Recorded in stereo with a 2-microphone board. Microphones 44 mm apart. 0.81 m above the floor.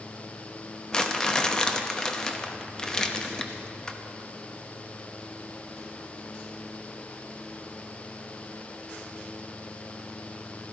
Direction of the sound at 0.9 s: 20° left (ahead or behind).